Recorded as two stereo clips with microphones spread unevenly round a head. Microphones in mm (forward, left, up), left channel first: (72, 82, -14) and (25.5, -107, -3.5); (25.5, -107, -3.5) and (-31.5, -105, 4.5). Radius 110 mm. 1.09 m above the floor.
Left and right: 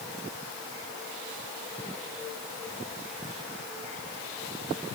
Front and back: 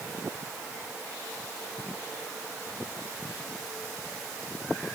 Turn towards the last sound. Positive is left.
No sound to turn to.